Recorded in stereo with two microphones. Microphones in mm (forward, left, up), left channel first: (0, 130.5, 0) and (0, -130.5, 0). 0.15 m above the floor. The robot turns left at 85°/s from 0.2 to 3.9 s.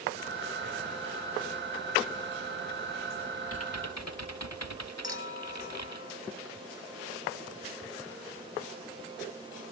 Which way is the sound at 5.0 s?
45° left (ahead or behind).